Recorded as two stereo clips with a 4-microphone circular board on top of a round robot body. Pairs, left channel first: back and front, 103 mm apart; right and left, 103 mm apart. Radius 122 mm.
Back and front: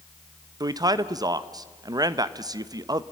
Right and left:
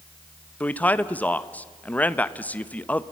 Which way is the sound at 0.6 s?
25° right.